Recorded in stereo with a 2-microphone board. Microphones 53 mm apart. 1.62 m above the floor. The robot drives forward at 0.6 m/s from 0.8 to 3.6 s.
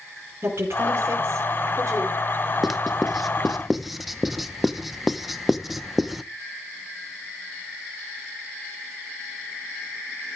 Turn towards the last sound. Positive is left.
turn(degrees=-5)  # may be behind; listen again after turning